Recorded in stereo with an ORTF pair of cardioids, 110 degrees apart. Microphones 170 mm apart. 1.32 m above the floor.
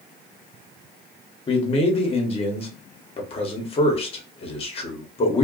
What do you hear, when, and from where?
1.5 s a man speaking: 35° left, 1.2 m